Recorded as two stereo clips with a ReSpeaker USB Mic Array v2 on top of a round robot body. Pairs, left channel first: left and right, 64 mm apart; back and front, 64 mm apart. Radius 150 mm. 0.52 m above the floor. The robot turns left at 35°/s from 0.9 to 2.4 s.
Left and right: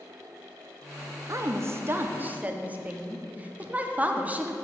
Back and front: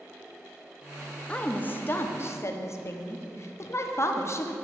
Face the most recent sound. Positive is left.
turn(degrees=-150)